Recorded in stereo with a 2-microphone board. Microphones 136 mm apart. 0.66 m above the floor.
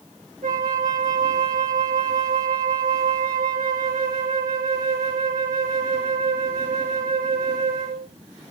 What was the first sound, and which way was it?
A flute, 75° right (ahead or behind).